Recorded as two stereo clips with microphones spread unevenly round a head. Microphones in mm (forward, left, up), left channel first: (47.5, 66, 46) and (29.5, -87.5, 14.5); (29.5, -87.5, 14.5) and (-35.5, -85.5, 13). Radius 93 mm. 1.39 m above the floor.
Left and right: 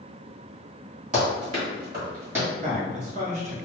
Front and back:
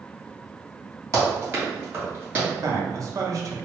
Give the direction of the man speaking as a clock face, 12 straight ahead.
5 o'clock.